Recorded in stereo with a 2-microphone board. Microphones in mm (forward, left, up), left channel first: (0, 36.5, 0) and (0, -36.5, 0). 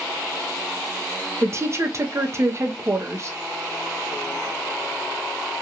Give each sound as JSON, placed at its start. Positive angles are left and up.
{"t": 1.4, "sound": "a woman speaking", "side_deg": -40, "distance_m": 0.6}